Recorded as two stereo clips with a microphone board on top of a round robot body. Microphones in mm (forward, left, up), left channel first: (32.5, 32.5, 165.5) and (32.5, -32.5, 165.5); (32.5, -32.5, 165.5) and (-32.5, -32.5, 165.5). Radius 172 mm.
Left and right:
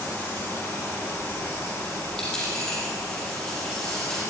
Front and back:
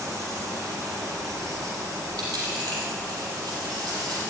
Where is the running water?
145° left, 2 m.